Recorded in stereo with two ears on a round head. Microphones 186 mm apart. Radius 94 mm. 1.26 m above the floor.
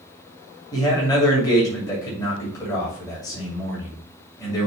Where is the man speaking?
20° left (ahead or behind), 2.5 m.